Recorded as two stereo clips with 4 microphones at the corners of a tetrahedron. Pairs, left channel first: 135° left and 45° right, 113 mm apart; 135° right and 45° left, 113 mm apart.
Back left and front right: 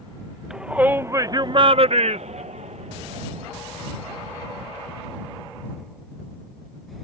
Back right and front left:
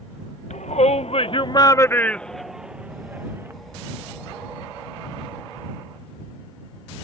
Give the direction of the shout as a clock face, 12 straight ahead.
4 o'clock.